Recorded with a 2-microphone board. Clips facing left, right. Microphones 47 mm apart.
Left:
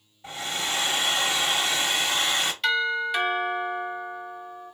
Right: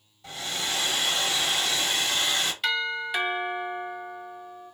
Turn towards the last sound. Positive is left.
turn(degrees=-5)  # may be behind; listen again after turning